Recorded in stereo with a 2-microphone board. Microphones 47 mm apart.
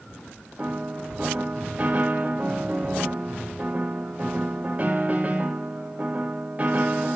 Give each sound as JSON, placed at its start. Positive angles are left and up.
{"t": 0.6, "sound": "a piano", "side_deg": -35, "distance_m": 1.3}